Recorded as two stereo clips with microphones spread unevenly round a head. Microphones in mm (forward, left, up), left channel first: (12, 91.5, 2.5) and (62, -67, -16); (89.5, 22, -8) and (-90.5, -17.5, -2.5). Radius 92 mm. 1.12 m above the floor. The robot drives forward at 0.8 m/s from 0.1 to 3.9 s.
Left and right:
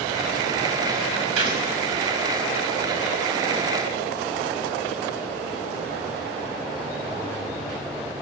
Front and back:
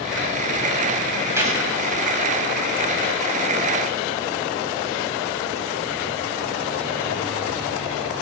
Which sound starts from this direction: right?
A gunshot, at 1.4 s.